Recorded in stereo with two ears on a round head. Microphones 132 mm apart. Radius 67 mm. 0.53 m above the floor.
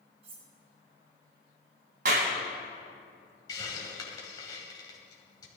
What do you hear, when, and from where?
0.2 s cutlery clinking: 40° right (ahead or behind), 3.5 m
2.0 s a clap: 65° right (ahead or behind), 2.5 m
3.5 s a hiss: 25° left (ahead or behind), 2 m